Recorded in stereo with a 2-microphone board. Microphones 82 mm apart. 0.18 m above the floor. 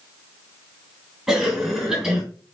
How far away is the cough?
About 2.5 m.